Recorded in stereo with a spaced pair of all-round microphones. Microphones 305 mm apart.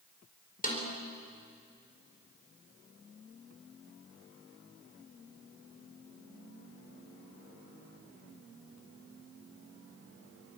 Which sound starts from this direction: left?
A snare drum, at 0.6 s.